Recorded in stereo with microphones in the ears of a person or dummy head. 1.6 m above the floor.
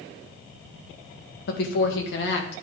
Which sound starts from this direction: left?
A woman speaking, at 1.5 s.